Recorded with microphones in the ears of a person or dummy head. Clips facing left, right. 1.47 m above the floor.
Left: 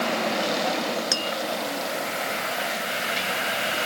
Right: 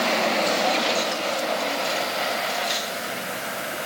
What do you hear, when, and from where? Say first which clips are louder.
1.1 s tapping: right 3 dB; 65° left (ahead or behind)